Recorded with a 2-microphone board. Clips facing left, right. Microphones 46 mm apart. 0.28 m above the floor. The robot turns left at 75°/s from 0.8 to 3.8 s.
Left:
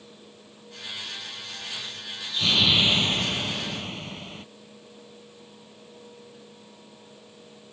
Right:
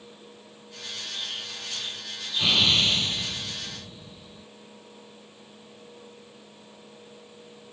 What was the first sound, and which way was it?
An explosion, 75° right.